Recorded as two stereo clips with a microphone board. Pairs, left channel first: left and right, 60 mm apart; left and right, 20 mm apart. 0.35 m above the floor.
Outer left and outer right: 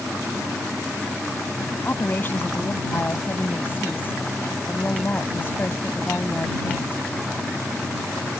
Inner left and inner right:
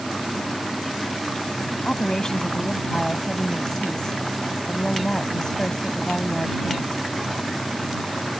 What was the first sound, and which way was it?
A woman speaking, 40° left (ahead or behind).